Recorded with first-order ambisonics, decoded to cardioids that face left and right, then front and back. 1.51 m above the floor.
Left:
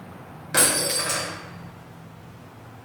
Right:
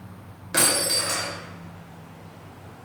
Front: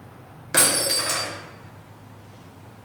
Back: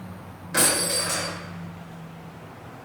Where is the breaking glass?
10° left, 1.1 m.